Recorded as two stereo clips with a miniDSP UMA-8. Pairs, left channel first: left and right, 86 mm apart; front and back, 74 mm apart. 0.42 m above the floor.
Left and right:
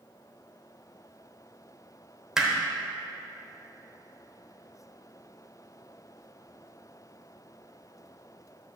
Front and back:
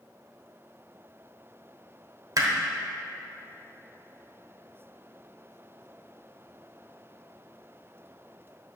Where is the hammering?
175° right, 1.0 m.